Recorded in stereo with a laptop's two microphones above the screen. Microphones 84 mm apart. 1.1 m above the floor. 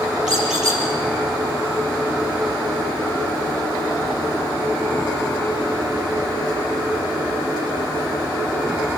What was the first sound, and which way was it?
A squeak, 10° right (ahead or behind).